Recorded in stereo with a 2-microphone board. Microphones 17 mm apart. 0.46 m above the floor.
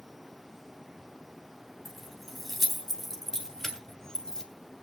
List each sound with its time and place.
1.9 s keys jangling: 10° left (ahead or behind), 3 m; by 4.5 s 35° left (ahead or behind), 1.9 m